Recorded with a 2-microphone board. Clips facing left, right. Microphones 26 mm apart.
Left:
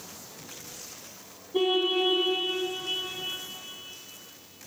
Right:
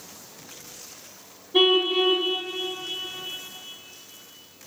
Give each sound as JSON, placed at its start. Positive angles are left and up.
{"t": 1.5, "sound": "a car horn", "side_deg": -55, "distance_m": 4.5}